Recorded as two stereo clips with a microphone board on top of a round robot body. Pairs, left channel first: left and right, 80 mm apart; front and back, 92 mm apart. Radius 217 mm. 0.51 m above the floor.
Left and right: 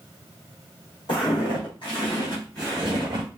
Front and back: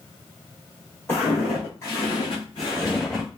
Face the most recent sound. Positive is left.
turn(degrees=-90)